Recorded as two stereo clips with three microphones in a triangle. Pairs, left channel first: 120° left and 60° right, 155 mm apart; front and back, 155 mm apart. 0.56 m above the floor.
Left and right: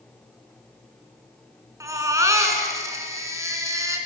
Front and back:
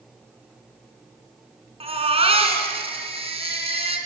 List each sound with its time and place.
1.8 s a baby crying: 130° right, 3 m